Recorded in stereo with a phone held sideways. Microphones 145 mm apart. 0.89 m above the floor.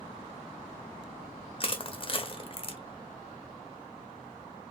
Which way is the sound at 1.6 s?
40° left (ahead or behind).